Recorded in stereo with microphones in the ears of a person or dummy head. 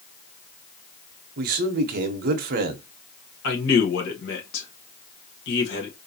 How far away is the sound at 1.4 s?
About 0.7 m.